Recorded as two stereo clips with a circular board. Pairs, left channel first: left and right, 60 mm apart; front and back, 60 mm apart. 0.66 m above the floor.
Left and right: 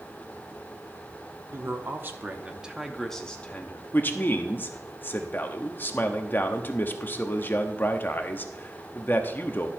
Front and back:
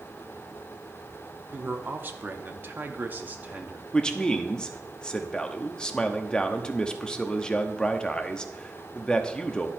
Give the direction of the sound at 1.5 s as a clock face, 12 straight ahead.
4 o'clock.